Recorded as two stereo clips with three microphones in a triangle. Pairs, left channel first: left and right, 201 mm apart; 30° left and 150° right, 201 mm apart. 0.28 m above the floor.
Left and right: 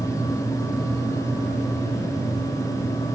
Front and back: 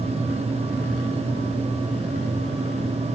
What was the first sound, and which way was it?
Only background noise.